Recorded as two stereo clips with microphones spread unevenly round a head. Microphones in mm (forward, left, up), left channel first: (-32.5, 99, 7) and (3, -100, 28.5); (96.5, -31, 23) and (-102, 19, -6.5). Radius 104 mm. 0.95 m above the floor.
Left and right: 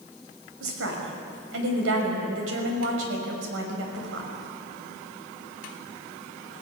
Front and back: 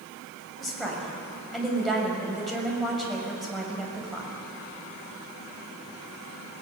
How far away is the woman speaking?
About 6 m.